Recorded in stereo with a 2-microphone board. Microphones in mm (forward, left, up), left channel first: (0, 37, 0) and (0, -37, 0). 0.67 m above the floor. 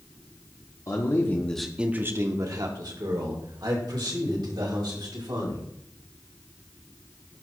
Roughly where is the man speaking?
Left.